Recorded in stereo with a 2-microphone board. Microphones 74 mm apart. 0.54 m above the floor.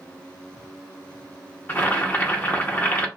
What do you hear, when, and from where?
1.7 s boiling: 25° left (ahead or behind), 0.8 m